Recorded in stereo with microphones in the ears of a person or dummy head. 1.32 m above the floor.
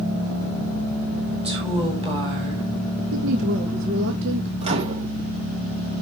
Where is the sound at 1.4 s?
30° right (ahead or behind), 6 m.